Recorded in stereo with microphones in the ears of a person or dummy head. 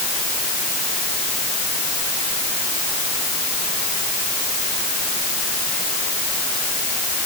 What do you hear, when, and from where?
Only background noise.